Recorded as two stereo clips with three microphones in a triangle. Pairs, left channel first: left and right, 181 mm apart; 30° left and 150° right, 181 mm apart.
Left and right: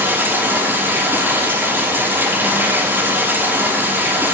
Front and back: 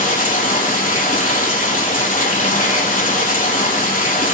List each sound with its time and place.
0.0 s running water: 15° right, 4.5 m